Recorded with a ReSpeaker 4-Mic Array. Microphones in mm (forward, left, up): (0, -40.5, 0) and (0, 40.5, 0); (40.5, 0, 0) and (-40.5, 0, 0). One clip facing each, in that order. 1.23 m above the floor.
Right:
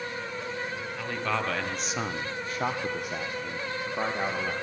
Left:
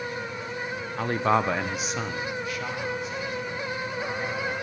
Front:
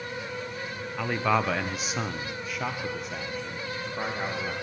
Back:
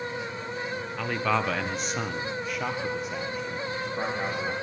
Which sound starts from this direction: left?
A man speaking, at 1.0 s.